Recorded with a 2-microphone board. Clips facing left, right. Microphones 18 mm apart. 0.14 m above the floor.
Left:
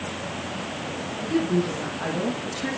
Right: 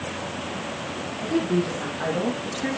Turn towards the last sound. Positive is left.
turn(degrees=-35)  # may be behind; listen again after turning